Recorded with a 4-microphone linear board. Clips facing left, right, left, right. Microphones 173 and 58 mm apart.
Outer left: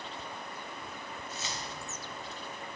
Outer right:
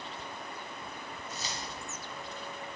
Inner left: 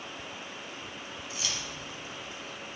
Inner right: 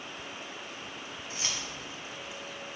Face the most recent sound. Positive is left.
turn(degrees=0)  # may be behind; listen again after turning